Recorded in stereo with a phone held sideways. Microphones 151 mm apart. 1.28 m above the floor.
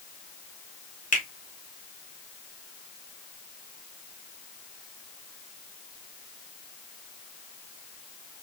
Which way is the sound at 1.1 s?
60° left (ahead or behind).